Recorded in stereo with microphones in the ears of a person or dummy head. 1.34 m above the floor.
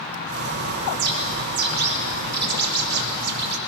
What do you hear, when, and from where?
0.3 s a bird: 50° right (ahead or behind), 1.2 m